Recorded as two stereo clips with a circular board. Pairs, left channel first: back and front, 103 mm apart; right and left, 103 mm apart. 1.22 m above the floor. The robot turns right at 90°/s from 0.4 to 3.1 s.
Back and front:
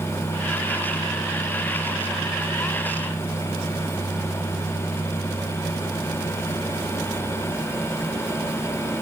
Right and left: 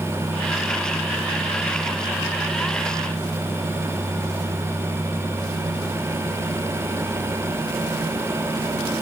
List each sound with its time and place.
Only background noise.